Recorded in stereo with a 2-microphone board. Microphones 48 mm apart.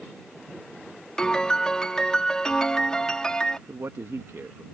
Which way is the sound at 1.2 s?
15° left (ahead or behind).